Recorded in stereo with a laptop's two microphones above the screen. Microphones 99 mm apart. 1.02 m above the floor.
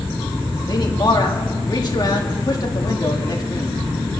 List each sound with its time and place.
0.7 s a man speaking: 40° left (ahead or behind), 1.9 m